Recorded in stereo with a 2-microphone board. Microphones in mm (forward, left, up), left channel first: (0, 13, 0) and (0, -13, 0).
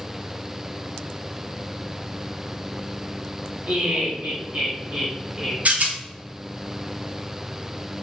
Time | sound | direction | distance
3.7 | laughter | 70° right (ahead or behind) | 1.3 m
5.7 | a rattle | 65° right (ahead or behind) | 0.7 m